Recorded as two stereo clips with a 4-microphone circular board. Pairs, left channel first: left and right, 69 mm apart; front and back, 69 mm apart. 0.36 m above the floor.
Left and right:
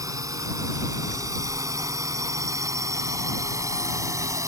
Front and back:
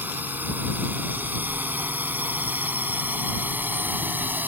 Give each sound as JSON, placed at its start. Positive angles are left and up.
{"t": 0.0, "sound": "a drone", "azimuth_deg": -120}